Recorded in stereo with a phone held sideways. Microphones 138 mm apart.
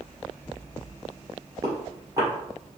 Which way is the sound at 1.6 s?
25° right (ahead or behind).